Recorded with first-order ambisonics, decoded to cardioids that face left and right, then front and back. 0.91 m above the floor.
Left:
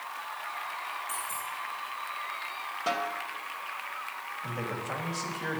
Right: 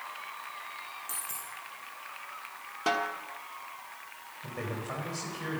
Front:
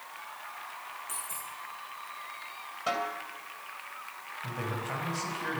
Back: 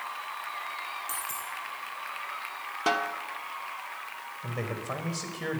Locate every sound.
1.1 s a dropped coin: 150° right, 5 m
2.9 s a snare drum: 155° right, 1.5 m
4.4 s a man speaking: 175° right, 4.5 m